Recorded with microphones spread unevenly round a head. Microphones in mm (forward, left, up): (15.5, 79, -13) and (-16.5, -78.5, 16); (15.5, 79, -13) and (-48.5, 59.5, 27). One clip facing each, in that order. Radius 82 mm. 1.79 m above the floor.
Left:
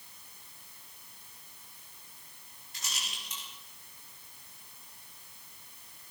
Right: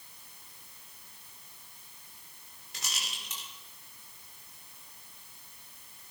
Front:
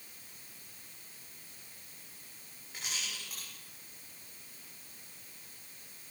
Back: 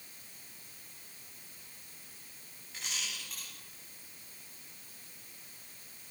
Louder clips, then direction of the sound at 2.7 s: Right 1 dB, even; 70° right.